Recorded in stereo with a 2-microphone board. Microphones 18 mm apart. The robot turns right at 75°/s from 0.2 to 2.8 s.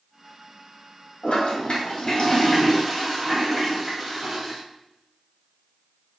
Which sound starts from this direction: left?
A toilet flushing, at 1.2 s.